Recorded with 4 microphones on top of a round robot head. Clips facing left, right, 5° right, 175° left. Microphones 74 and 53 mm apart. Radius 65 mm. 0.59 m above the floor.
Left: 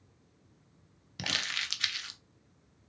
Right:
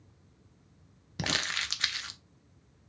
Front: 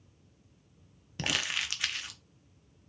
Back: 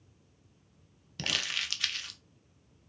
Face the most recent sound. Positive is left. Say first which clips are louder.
# right 3 dB, front 2 dB
turn(degrees=-60)